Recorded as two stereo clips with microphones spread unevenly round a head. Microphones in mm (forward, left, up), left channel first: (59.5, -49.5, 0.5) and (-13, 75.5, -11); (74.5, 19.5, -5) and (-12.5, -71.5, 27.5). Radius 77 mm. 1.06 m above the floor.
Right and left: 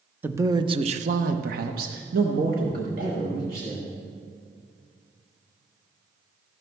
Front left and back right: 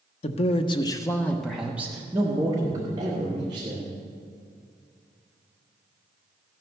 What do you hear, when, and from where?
0.2 s a man speaking: 45° left, 0.8 m; by 3.9 s 165° left, 2.5 m